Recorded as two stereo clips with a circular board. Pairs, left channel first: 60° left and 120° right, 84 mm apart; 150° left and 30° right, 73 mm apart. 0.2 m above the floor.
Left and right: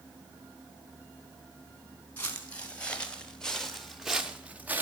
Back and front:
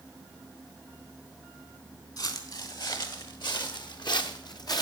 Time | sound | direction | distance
2.2 | footsteps | 130° left | 2.5 m